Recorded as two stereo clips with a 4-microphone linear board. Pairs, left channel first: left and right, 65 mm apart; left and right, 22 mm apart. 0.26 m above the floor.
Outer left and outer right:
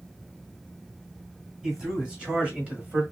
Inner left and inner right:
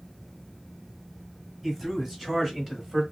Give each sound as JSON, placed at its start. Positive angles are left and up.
{"t": 1.6, "sound": "a man speaking", "side_deg": -10, "distance_m": 1.4}